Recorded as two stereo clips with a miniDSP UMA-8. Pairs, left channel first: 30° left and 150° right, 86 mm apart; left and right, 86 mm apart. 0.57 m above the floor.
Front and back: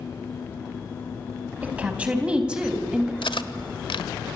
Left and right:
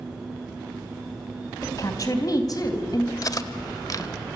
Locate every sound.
1.6 s a woman speaking: 135° left, 4 m; by 3.1 s 125° left, 3.5 m
3.2 s cutlery clinking: 45° left, 1.1 m